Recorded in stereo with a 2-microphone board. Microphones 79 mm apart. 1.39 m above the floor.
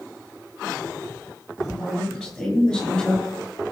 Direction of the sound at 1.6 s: Centre (ahead or behind).